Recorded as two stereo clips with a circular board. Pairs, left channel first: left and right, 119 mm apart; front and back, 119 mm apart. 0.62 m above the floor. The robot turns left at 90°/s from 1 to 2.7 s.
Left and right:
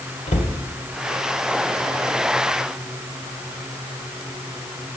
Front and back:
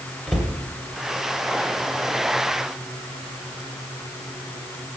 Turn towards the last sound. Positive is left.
turn(degrees=-65)